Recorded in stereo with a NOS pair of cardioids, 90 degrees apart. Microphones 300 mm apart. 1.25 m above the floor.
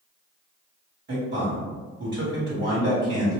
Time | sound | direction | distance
1.1 | a man speaking | 45° right | 1.6 m